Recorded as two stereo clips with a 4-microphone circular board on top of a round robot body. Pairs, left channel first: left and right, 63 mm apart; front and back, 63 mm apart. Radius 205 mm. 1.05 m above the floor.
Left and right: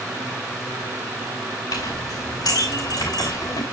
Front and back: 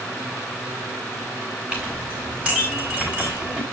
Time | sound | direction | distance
1.7 | a clink | 110° left | 4 m